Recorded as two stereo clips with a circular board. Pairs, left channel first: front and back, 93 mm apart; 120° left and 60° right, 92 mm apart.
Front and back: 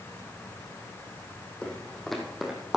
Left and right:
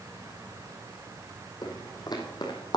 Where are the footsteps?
80° left, 2.5 m; by 2.8 s 100° left, 2 m.